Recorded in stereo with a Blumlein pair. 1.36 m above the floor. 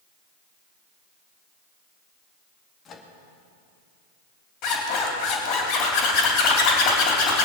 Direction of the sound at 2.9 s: 25° left.